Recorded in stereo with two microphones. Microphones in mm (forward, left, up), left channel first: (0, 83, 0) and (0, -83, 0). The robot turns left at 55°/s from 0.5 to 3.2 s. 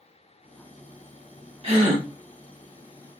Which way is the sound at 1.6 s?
35° right (ahead or behind).